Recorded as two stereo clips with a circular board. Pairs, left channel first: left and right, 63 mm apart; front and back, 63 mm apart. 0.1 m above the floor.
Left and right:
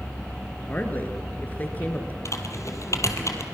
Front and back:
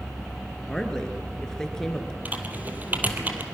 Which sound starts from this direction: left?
A woman speaking, at 0.7 s.